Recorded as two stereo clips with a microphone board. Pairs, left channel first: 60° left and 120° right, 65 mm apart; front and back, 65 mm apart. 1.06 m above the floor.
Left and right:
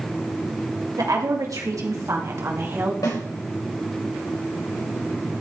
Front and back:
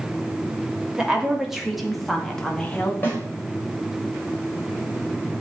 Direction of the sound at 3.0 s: 60° left.